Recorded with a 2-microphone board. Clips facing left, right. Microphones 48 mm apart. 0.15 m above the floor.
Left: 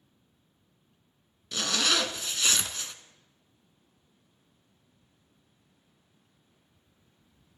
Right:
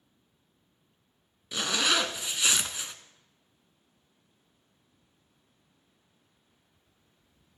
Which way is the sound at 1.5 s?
15° right (ahead or behind).